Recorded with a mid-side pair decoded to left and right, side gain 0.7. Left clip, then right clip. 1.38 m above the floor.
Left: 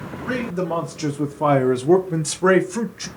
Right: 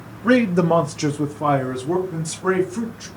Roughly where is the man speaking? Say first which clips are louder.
Right 8 dB; ahead right.